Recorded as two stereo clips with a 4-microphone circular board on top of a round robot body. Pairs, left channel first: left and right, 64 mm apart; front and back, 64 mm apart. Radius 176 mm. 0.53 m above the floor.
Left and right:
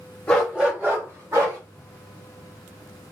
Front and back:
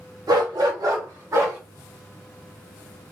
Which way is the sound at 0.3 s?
165° left.